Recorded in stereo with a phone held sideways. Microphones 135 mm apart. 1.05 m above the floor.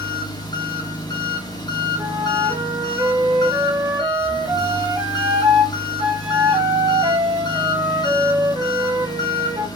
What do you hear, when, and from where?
0.0 s an engine running: 30° left (ahead or behind), 0.7 m
2.0 s a flute: 40° right (ahead or behind), 0.8 m